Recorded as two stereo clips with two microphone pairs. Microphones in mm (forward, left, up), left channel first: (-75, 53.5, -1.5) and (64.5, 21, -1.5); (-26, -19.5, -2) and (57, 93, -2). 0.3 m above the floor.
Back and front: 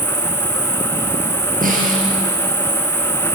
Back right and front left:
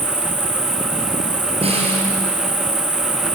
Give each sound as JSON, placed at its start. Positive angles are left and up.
{"t": 0.0, "sound": "an insect", "azimuth_deg": 0, "distance_m": 5.0}
{"t": 1.6, "sound": "a snare drum", "azimuth_deg": 5, "distance_m": 5.0}